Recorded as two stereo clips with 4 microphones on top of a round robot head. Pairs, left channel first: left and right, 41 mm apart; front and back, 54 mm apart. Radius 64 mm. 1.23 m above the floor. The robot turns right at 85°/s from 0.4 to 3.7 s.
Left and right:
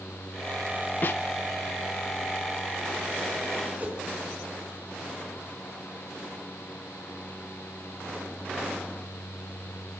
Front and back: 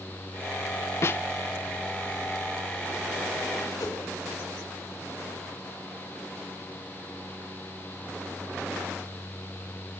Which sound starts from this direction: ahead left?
A snare drum, at 1.0 s.